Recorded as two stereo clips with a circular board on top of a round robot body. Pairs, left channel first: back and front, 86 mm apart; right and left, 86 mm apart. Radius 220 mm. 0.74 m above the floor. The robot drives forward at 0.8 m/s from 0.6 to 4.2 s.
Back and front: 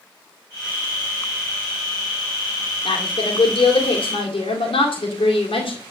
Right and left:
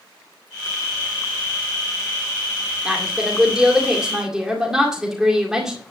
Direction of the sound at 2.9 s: 165° left.